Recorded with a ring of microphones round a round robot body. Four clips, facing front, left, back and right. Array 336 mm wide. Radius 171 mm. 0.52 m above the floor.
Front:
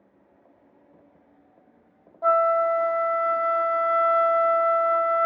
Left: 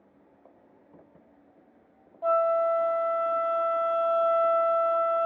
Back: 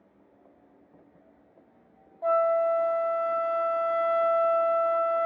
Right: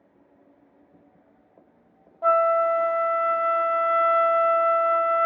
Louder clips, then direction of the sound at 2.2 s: Right 4 dB, front 3 dB; 50° right.